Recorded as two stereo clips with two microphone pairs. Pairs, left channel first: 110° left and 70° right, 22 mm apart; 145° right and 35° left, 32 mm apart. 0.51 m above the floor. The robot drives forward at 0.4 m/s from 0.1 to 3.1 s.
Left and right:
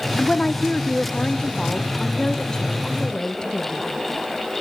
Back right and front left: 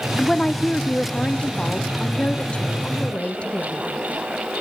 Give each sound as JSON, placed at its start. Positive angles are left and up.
{"t": 0.2, "sound": "a woman speaking", "azimuth_deg": 140, "distance_m": 0.8}